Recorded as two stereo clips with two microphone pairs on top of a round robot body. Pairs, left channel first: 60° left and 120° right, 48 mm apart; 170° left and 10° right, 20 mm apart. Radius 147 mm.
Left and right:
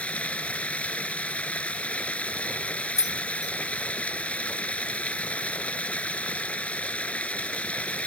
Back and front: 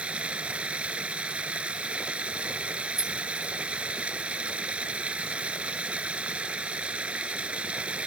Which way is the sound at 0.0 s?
5° right.